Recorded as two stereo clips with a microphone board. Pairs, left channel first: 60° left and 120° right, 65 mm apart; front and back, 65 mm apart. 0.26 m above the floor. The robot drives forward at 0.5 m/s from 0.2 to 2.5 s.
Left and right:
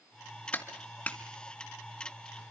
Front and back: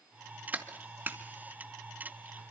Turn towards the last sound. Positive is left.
turn(degrees=140)